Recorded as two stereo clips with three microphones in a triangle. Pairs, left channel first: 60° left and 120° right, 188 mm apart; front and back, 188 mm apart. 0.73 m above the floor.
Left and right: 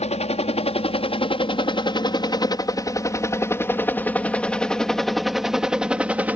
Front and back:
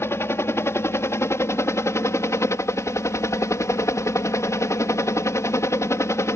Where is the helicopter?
65° left; by 6.4 s 50° right.